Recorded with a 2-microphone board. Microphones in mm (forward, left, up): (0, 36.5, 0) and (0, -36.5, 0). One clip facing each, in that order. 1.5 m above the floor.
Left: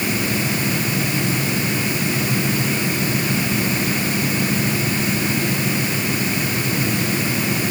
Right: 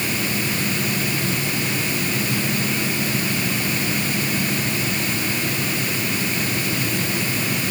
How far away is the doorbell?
I don't hear a doorbell.